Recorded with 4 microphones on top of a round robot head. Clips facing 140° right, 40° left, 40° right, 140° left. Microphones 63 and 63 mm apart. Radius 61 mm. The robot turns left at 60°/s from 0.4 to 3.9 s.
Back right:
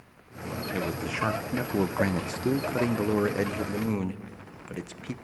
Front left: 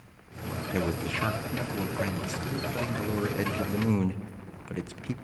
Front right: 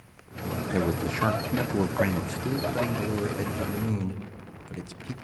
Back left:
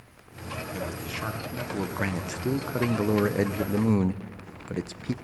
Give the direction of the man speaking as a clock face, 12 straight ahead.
1 o'clock.